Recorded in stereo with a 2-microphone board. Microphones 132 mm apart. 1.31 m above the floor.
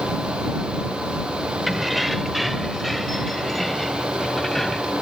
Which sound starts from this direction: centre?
Keys jangling, at 1.7 s.